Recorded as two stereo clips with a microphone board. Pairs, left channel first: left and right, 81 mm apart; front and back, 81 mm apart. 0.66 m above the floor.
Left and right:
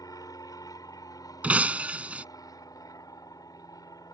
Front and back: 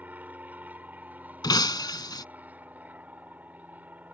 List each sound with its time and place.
0.0 s an aircraft: 115° left
1.4 s breaking glass: 20° right